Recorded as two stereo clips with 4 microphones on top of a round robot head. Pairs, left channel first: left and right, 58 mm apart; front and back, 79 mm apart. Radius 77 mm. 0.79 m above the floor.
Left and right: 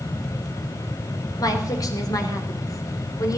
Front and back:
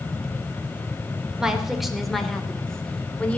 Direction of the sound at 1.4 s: 100° left.